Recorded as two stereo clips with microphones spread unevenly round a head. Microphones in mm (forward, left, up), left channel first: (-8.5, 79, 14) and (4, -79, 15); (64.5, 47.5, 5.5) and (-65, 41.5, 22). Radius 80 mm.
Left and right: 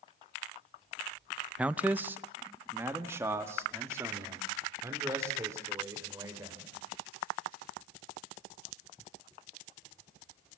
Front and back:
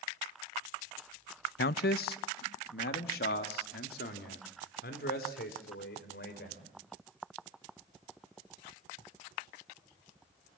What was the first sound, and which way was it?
A man speaking, 5° right.